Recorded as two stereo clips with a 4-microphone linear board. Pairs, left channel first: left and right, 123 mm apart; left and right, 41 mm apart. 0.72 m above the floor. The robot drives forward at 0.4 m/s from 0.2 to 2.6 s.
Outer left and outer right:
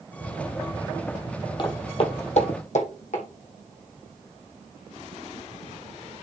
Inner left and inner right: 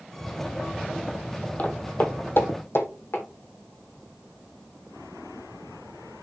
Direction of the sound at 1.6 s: 40° left (ahead or behind).